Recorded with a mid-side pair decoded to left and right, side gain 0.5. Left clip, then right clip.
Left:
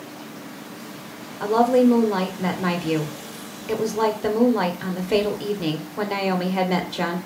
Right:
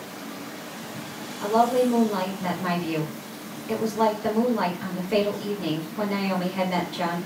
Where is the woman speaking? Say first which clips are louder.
Left 3 dB; 65° left, 1.0 m.